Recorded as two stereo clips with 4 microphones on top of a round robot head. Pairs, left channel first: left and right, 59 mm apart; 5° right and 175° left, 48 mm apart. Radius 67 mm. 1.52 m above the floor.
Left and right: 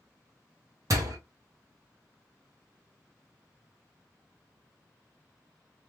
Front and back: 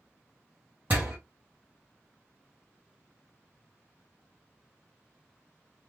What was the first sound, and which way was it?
A door slam, 120° right.